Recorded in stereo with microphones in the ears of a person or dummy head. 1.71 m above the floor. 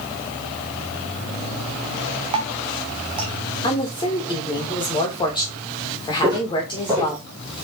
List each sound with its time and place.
2.3 s dripping: 20° right (ahead or behind), 0.8 m
3.6 s a woman speaking: 25° left (ahead or behind), 2.5 m
6.2 s footsteps: 15° right (ahead or behind), 3 m; by 7.7 s centre (ahead or behind), 1.9 m